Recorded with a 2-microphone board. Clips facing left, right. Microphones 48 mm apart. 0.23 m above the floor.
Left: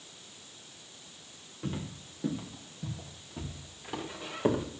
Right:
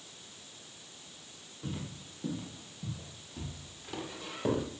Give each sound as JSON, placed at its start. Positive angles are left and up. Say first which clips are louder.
{"t": 1.6, "sound": "footsteps", "louder": "left 3 dB", "side_deg": 35, "distance_m": 4.0}